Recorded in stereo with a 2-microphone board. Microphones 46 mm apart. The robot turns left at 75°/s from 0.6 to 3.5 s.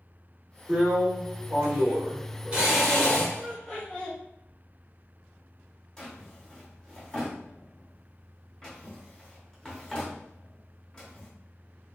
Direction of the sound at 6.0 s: 10° left (ahead or behind).